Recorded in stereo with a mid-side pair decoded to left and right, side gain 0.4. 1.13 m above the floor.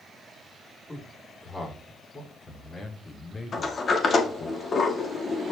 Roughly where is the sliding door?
Ahead left.